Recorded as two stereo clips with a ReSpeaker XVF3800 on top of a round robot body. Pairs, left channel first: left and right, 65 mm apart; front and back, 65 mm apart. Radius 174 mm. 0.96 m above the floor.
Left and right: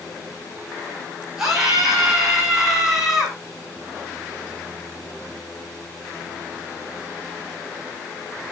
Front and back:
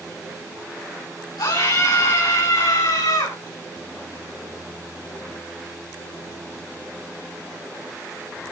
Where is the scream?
5° right, 6 m.